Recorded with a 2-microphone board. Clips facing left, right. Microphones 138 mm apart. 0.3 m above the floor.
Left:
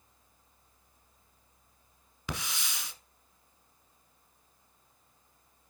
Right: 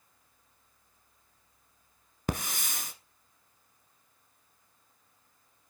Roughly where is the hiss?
Right.